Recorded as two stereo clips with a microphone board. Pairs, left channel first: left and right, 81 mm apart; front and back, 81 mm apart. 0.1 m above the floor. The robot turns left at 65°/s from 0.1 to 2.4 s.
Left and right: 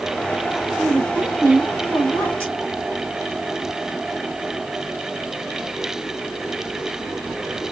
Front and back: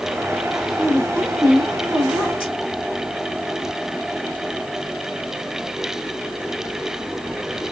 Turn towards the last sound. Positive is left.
turn(degrees=-120)